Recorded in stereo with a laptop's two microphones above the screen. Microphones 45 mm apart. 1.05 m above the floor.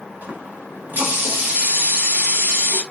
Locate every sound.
0.2 s a running tap: 40° right (ahead or behind), 1.1 m